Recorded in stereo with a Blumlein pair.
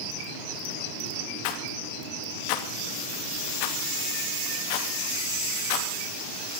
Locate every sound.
1.4 s a rattle: 45° left, 2.5 m